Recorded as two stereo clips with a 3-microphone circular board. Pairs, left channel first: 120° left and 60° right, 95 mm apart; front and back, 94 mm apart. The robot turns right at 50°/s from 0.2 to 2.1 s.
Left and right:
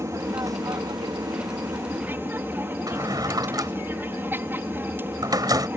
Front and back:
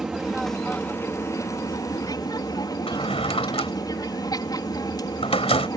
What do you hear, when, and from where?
0.0 s an aircraft: 100° right; by 5.8 s 5° right
2.9 s a drawer: 10° right